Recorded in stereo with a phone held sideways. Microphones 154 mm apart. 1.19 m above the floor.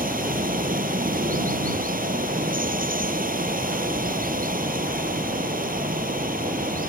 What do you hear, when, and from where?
0.0 s running water: 65° right (ahead or behind)